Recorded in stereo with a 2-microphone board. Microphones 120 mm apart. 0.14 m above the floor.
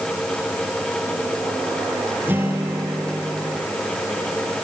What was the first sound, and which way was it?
A guitar, 15° right (ahead or behind).